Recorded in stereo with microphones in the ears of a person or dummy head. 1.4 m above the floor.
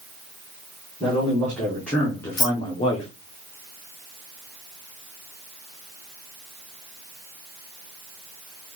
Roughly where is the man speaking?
Centre.